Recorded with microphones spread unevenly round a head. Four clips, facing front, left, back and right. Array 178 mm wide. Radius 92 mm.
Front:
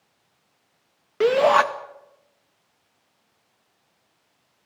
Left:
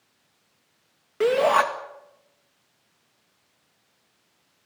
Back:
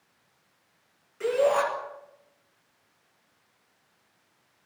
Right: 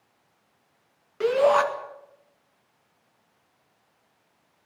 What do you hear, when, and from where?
1.2 s a shout: 25° left, 2 m